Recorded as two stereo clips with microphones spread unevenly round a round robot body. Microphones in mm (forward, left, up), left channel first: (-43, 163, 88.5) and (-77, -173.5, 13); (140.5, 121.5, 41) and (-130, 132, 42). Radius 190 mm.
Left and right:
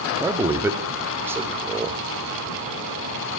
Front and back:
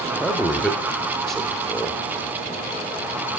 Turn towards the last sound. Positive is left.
turn(degrees=-90)